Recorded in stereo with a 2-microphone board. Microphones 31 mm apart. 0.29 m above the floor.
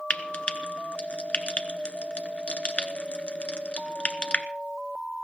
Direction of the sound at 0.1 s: 40° left (ahead or behind).